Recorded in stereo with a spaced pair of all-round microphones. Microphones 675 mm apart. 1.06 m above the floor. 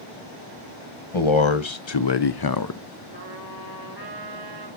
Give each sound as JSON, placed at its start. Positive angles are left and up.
{"t": 1.1, "sound": "a man speaking", "side_deg": 45, "distance_m": 1.1}
{"t": 3.1, "sound": "a trumpet", "side_deg": -30, "distance_m": 5.0}